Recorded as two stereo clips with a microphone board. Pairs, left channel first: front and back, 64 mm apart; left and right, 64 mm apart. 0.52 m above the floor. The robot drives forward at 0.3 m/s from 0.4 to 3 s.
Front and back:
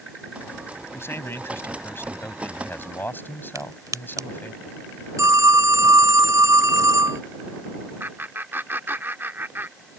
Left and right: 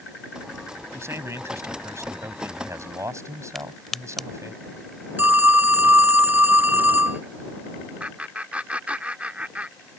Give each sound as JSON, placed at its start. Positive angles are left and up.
{"t": 0.9, "sound": "a man speaking", "azimuth_deg": -50}
{"t": 3.5, "sound": "a crack", "azimuth_deg": 175}
{"t": 5.2, "sound": "a phone ringing", "azimuth_deg": -150}
{"t": 8.0, "sound": "laughter", "azimuth_deg": -150}